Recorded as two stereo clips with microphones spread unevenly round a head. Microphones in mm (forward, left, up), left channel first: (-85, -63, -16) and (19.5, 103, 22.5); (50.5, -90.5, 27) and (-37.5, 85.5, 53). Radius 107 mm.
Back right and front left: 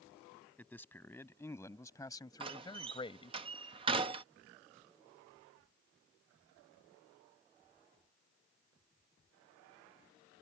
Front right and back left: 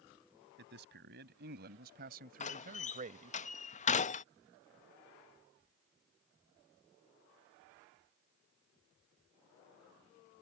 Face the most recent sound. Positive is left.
turn(degrees=-15)